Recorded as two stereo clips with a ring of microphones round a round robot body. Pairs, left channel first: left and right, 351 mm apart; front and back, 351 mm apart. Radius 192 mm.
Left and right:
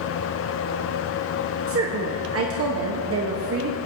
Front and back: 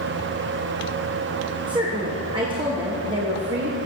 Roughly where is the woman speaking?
Right.